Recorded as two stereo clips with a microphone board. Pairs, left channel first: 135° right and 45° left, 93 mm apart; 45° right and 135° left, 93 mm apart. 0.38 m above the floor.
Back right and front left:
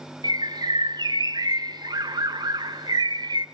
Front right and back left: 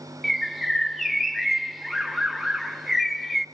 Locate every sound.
0.2 s a bird: 45° left, 0.6 m